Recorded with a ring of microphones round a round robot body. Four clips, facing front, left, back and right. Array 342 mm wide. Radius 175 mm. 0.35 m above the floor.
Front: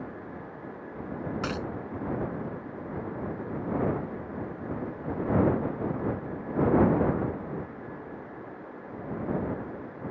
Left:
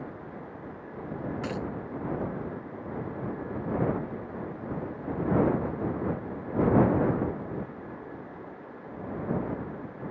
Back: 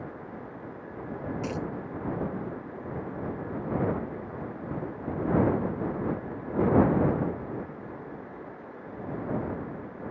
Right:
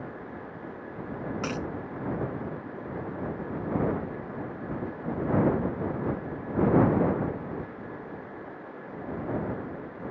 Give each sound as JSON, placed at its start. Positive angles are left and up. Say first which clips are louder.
{"t": 1.4, "sound": "a dropped coin", "louder": "right 2 dB, back 1 dB", "azimuth_deg": -35}